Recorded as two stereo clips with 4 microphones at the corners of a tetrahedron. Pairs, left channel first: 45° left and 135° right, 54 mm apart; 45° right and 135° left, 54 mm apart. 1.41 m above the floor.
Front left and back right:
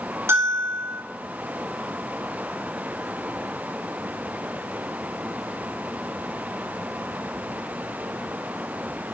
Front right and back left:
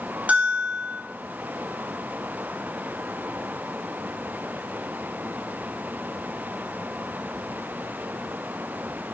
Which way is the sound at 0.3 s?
165° right.